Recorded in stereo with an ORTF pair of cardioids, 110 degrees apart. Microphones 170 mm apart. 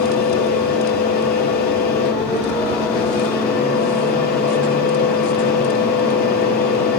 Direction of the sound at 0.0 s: 65° left.